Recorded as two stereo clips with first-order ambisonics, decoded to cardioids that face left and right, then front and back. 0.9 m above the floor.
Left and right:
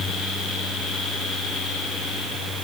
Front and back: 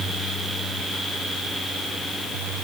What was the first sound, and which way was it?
Only background noise.